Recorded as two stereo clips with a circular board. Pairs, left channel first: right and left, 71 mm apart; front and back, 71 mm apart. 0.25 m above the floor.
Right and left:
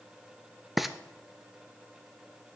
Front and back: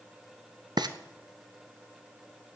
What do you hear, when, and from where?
0.8 s frying: 175° left, 0.7 m